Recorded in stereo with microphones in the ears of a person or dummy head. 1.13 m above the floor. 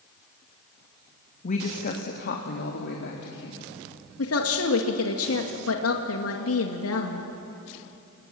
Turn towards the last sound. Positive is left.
turn(degrees=70)  # may be behind; listen again after turning